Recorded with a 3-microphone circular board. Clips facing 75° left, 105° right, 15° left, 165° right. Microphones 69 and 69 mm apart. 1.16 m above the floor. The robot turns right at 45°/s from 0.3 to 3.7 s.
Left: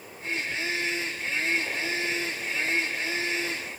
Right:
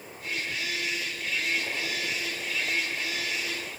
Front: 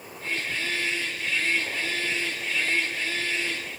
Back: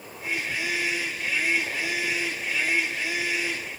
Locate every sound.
Only background noise.